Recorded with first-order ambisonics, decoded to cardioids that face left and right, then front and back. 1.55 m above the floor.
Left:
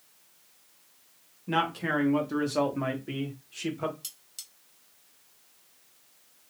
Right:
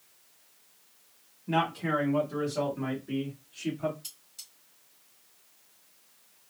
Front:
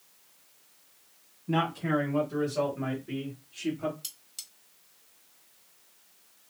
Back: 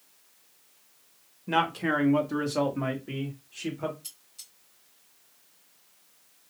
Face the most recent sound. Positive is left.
turn(degrees=45)